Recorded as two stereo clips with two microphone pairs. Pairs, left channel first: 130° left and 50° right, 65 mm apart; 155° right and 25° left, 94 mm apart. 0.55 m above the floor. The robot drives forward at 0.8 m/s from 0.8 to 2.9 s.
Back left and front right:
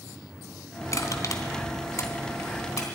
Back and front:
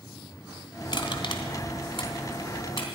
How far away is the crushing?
About 1.8 m.